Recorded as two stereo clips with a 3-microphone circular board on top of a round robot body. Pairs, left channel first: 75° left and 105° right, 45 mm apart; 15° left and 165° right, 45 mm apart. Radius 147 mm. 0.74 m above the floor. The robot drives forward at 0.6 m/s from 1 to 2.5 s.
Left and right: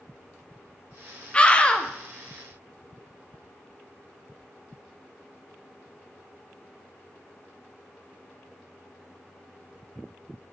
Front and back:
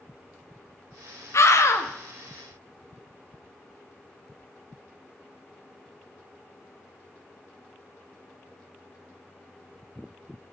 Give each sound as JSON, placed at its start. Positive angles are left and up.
{"t": 1.3, "sound": "a scream", "azimuth_deg": 10, "distance_m": 1.8}